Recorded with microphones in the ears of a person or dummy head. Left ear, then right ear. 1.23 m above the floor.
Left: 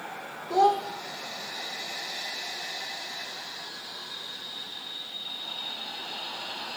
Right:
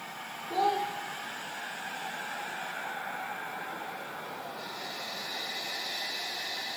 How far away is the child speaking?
About 1.0 m.